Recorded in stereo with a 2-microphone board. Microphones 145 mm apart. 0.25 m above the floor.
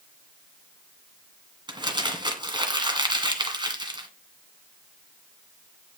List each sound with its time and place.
1.7 s crumpling: 30° right (ahead or behind), 1.8 m